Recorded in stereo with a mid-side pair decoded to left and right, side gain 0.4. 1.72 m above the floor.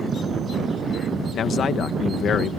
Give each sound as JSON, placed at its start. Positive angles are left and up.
{"t": 1.3, "sound": "a man speaking", "azimuth_deg": 65}